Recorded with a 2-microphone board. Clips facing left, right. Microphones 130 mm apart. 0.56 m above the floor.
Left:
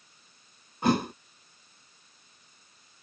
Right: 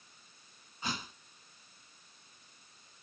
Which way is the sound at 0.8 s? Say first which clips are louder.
Left 16 dB; 70° left (ahead or behind).